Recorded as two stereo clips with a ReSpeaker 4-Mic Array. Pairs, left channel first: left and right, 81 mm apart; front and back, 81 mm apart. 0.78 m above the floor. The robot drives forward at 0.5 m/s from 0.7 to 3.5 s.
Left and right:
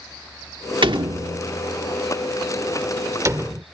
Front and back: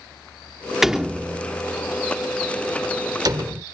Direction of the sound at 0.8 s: 95° right.